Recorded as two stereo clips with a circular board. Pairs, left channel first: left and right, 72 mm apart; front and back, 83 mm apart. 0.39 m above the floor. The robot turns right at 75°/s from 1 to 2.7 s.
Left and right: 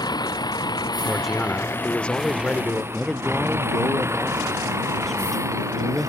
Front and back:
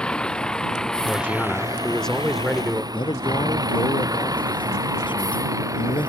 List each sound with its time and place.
0.0 s a vehicle: 80° left; by 6.1 s 135° right
1.1 s a man speaking: 15° right; by 2.8 s 110° left
2.9 s a man speaking: 5° left